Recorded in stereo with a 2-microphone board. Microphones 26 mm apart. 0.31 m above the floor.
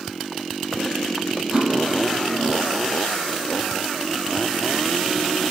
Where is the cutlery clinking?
25° right (ahead or behind), 5.5 m.